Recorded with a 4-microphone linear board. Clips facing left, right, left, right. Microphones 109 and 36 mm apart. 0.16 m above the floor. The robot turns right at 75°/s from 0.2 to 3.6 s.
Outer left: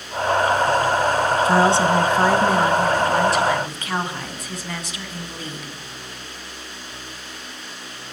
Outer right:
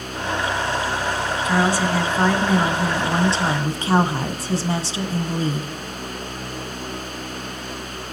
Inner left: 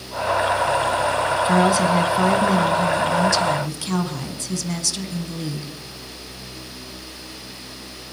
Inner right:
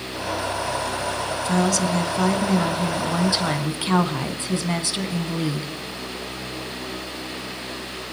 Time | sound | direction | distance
1.4 | a woman speaking | 100° left | 1.2 m